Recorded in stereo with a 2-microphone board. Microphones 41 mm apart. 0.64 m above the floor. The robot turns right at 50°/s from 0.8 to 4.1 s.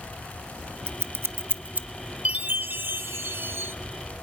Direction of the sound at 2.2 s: 150° right.